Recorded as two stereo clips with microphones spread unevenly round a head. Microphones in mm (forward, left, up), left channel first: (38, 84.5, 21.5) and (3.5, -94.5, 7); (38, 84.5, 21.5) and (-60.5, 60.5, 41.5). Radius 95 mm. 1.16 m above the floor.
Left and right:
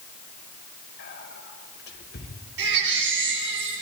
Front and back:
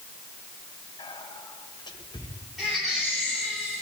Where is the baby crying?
75° right, 7 m.